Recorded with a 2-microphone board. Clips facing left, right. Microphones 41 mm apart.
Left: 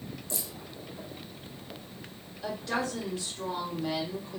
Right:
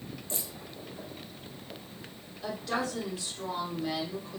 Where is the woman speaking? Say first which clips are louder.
Left 1 dB; 5° right (ahead or behind), 1.9 m.